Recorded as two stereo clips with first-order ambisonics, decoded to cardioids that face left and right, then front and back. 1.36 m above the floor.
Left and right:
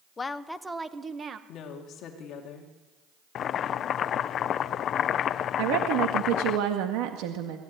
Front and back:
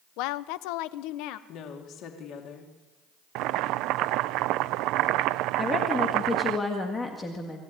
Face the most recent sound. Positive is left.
turn(degrees=-75)